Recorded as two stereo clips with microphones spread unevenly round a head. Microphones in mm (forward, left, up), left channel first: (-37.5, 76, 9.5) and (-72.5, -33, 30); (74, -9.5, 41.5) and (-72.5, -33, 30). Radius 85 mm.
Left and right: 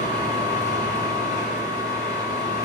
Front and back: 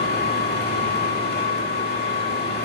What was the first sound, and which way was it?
A machine running, 5° right.